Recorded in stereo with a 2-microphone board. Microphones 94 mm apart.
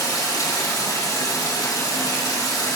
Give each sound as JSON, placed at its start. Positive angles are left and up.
{"t": 0.0, "sound": "running water", "side_deg": 40, "distance_m": 1.8}